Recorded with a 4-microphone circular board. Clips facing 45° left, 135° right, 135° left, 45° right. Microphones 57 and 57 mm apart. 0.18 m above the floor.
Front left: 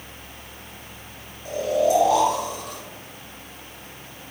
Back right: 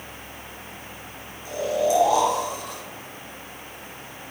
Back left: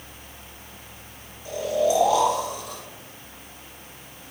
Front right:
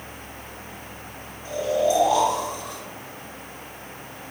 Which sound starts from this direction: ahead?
Snoring, at 1.4 s.